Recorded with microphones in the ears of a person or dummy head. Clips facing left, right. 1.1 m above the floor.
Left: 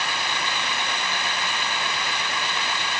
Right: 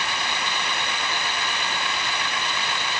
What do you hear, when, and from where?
Only background noise.